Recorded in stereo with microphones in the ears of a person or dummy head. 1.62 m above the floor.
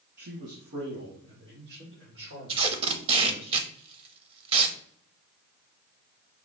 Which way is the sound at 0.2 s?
55° right (ahead or behind).